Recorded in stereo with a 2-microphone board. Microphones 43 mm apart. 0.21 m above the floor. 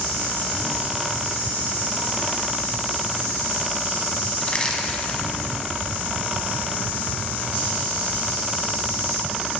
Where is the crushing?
25° left (ahead or behind), 1.0 m.